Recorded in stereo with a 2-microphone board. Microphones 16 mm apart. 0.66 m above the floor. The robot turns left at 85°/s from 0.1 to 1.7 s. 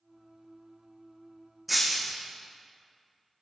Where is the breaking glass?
Centre (ahead or behind), 3 m.